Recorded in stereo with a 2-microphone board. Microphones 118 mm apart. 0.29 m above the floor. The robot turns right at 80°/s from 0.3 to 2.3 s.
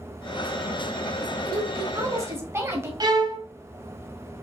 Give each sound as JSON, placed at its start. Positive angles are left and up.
{"t": 1.4, "sound": "a woman speaking", "azimuth_deg": -100, "distance_m": 1.2}
{"t": 3.0, "sound": "a violin", "side_deg": -35, "distance_m": 0.7}